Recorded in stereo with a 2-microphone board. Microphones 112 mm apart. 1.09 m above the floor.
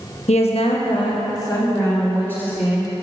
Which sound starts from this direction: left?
A woman speaking, at 0.3 s.